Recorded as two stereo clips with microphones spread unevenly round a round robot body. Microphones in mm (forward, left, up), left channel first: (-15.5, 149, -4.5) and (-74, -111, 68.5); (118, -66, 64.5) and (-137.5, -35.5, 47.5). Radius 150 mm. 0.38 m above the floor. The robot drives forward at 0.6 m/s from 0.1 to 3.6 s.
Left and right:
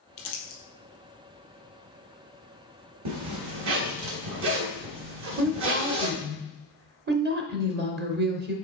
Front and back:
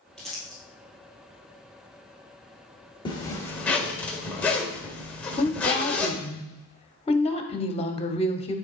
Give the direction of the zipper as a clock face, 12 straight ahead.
3 o'clock.